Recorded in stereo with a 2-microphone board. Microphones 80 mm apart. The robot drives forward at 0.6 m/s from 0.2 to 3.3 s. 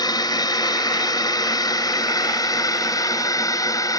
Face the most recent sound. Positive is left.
turn(degrees=50)  # may be behind; listen again after turning